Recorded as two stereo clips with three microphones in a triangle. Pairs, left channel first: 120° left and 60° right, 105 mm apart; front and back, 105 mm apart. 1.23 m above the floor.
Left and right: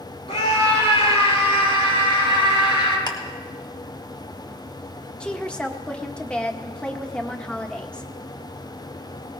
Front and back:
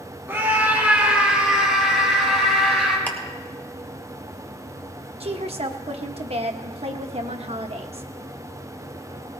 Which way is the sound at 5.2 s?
160° right.